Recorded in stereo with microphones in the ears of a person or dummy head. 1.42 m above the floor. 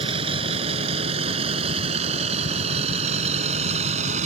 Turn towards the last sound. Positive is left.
turn(degrees=-45)  # may be behind; listen again after turning